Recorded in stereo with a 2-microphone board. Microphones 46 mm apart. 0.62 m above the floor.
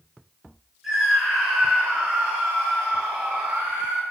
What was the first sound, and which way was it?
A scream, 10° right (ahead or behind).